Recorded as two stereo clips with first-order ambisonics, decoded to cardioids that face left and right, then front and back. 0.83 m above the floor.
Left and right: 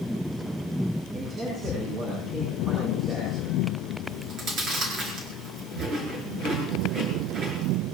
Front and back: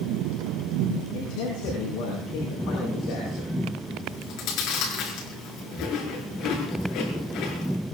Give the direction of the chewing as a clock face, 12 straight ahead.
1 o'clock.